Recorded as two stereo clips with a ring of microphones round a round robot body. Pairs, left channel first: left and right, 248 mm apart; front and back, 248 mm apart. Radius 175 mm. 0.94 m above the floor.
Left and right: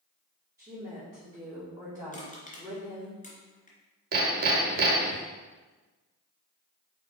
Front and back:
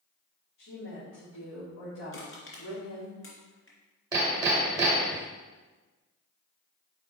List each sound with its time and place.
0.6 s a woman speaking: 15° right, 3 m
2.1 s crushing: 30° left, 2.5 m
4.1 s hammering: 110° right, 0.7 m